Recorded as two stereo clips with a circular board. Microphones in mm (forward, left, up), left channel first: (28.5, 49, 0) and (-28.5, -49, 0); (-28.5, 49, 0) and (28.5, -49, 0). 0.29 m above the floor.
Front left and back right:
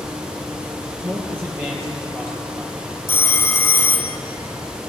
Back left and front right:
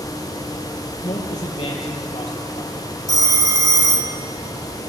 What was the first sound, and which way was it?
A man speaking, 165° left.